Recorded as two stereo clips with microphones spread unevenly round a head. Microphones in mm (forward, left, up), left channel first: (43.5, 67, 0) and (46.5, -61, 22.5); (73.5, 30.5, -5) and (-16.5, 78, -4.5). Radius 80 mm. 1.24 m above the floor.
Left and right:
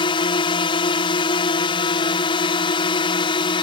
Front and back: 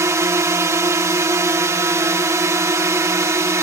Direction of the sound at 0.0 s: 105° left.